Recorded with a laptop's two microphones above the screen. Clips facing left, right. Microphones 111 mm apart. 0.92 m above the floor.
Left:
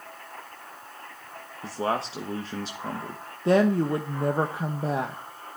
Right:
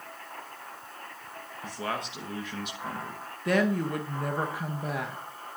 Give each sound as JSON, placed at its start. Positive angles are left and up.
{"t": 1.6, "sound": "a man speaking", "side_deg": 30, "distance_m": 1.0}
{"t": 3.5, "sound": "a woman speaking", "side_deg": 30, "distance_m": 0.9}